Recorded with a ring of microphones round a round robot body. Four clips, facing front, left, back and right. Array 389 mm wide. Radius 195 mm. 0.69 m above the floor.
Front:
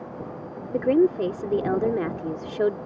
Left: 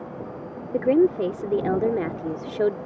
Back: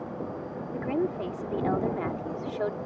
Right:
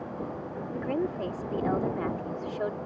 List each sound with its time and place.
0.7 s a woman speaking: 50° left